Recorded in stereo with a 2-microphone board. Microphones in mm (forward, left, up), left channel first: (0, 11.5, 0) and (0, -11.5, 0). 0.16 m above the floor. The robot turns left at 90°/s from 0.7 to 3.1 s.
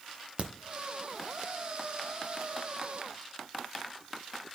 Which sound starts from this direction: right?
A crack, at 0.4 s.